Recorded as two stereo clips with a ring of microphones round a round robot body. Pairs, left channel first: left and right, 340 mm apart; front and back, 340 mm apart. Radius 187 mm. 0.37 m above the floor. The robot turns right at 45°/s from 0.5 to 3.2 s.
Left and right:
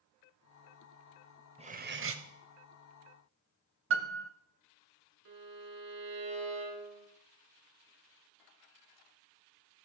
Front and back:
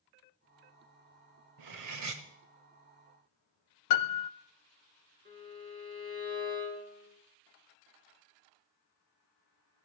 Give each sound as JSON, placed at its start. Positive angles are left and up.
{"t": 1.6, "sound": "cutlery clinking", "azimuth_deg": -165, "distance_m": 1.2}
{"t": 3.9, "sound": "a piano", "azimuth_deg": -30, "distance_m": 0.5}
{"t": 5.2, "sound": "a violin", "azimuth_deg": -115, "distance_m": 3.5}